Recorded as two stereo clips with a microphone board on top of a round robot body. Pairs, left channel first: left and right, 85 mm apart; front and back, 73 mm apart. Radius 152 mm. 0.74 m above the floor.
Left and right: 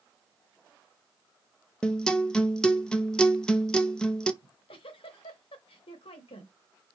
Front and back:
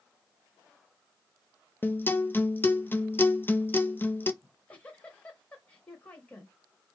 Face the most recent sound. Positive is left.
turn(degrees=75)